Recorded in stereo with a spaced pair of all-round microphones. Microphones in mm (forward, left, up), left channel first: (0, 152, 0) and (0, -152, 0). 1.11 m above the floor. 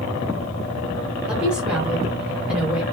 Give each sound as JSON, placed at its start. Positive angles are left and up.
{"t": 1.3, "sound": "a woman speaking", "side_deg": -5, "distance_m": 1.5}